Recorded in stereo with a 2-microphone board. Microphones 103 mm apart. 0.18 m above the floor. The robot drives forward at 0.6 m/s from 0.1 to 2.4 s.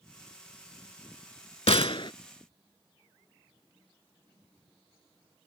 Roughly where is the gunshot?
Left.